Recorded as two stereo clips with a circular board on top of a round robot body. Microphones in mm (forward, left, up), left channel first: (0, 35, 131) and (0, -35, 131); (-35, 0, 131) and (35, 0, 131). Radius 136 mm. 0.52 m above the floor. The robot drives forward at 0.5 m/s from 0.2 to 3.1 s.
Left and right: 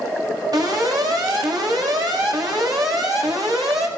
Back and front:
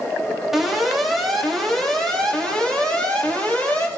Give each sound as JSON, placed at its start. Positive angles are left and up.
{"t": 0.5, "sound": "an alarm", "azimuth_deg": -85, "distance_m": 4.0}